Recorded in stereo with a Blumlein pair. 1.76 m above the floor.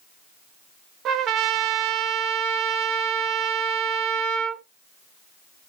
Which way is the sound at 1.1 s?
35° right.